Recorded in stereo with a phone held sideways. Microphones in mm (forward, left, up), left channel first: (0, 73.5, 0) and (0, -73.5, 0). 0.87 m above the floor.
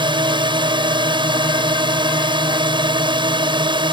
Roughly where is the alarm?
I don't hear an alarm.